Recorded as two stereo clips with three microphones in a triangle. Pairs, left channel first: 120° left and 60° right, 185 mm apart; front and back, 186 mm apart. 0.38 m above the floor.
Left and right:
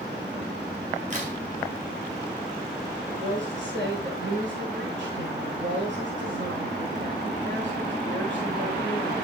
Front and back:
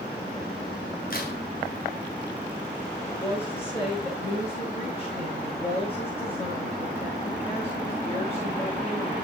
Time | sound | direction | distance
1.1 | a crack | 20° right | 2.5 m
3.1 | a woman speaking | 60° right | 6 m